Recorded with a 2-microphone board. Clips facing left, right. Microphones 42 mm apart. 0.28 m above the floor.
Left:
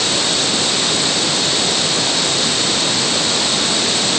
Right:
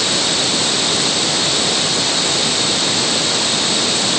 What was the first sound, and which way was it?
Only background noise.